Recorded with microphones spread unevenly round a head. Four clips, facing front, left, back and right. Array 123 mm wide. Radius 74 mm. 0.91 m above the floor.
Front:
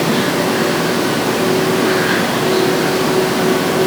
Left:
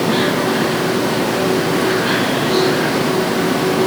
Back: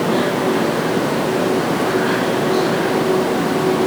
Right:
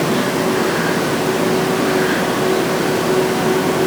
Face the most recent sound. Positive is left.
No sound to turn to.